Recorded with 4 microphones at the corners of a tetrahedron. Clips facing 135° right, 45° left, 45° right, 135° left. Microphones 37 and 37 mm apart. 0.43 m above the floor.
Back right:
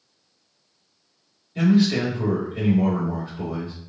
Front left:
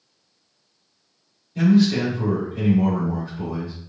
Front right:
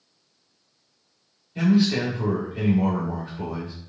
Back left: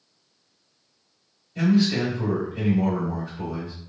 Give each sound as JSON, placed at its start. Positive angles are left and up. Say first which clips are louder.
{"t": 1.6, "sound": "a man speaking", "louder": "front left 2 dB, even", "azimuth_deg": -90, "distance_m": 1.7}